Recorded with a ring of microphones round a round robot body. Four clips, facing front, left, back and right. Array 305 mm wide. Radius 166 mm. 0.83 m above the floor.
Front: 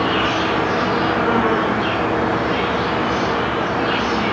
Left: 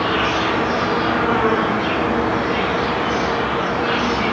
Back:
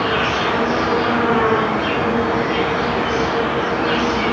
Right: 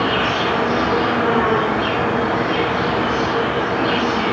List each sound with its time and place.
0.0 s an insect: 150° right, 6.5 m